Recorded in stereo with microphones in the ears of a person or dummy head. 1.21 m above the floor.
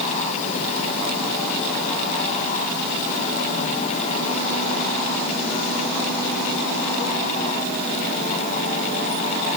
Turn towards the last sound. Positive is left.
No sound to turn to.